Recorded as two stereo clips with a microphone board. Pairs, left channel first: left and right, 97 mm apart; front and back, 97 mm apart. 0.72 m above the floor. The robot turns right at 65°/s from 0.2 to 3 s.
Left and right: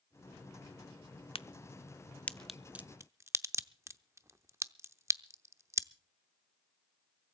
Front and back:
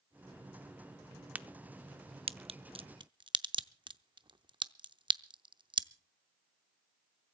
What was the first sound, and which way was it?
A crack, 105° left.